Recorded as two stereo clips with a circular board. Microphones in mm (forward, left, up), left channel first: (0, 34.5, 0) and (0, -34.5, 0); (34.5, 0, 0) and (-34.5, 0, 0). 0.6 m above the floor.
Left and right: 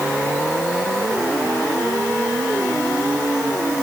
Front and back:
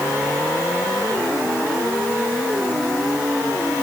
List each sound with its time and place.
Only background noise.